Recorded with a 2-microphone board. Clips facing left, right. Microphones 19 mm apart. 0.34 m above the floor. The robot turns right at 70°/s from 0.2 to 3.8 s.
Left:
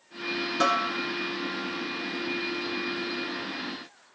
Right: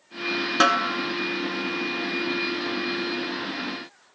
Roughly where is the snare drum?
Right.